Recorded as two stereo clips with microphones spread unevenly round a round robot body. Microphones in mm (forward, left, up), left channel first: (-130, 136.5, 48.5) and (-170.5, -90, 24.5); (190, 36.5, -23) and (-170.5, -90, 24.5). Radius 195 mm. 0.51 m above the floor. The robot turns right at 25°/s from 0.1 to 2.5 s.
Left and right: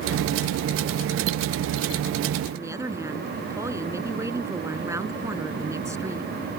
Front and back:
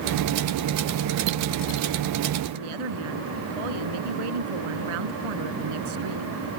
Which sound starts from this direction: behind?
A woman speaking, at 2.5 s.